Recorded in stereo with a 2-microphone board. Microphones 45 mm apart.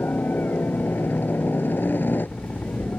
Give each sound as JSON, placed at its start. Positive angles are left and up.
{"t": 0.0, "sound": "a helicopter", "side_deg": 55}